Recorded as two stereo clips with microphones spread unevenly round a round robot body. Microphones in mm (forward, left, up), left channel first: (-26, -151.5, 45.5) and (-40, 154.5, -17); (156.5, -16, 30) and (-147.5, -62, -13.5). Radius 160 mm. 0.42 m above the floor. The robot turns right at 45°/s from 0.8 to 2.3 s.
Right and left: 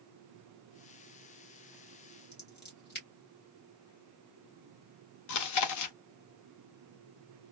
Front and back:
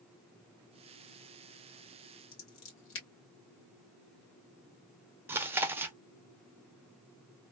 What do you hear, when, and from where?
2.3 s scissors: 30° right, 1.9 m
5.3 s chewing: 100° right, 0.6 m